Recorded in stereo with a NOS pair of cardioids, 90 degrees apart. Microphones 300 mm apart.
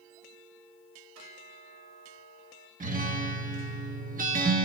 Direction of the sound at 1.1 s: 65° right.